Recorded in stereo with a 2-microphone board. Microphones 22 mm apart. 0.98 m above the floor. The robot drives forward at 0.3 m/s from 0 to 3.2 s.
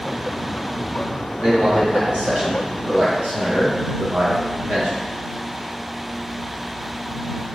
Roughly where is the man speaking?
Right.